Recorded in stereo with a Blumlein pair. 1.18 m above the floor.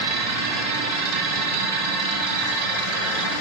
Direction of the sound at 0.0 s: 50° right.